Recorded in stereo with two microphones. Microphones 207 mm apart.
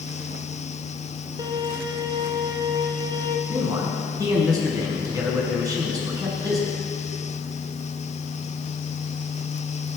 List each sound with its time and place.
1.4 s a violin: 20° right (ahead or behind), 1.4 m
3.5 s a man speaking: 15° right (ahead or behind), 5 m